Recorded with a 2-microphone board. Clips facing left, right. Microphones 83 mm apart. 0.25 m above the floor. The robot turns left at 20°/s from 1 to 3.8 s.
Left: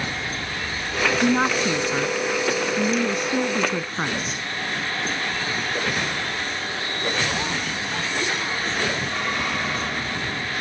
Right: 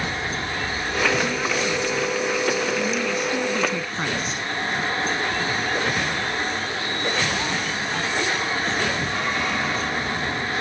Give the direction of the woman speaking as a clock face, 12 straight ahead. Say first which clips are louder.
Left 4 dB; 10 o'clock.